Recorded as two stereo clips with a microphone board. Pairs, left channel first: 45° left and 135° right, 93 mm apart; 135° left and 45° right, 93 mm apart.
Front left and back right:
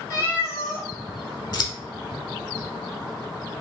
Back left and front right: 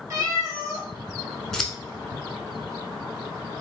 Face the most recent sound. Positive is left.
turn(degrees=50)